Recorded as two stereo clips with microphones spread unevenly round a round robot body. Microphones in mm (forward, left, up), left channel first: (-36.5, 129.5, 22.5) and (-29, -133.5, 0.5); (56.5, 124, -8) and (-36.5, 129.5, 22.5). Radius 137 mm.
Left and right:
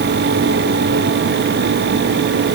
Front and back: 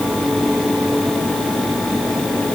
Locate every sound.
Only background noise.